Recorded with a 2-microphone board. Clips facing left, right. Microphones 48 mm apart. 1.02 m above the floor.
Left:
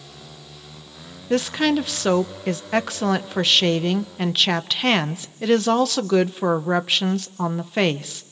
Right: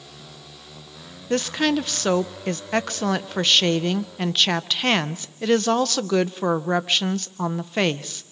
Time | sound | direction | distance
1.3 | a woman speaking | centre (ahead or behind) | 0.7 m